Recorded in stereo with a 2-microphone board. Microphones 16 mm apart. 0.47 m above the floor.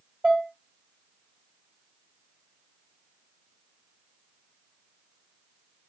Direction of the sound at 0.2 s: 60° right (ahead or behind).